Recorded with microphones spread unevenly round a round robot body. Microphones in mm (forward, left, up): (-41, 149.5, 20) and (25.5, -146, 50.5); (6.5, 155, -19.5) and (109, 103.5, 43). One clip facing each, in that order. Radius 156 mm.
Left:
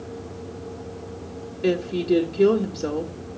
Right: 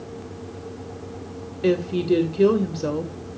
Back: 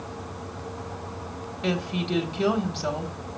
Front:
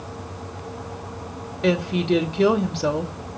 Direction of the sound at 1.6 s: 5° left.